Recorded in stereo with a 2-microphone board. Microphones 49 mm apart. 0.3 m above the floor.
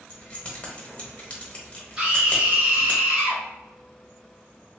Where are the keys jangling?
30° left (ahead or behind), 0.7 m.